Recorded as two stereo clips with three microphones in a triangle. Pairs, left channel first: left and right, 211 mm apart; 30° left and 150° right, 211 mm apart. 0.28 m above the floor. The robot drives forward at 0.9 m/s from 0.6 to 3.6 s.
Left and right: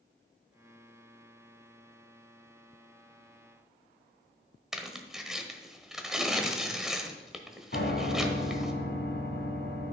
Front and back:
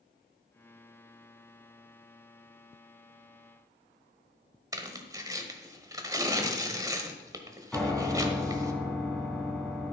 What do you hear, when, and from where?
4.7 s tearing paper: 175° right, 1.3 m
7.7 s a piano: 115° left, 1.9 m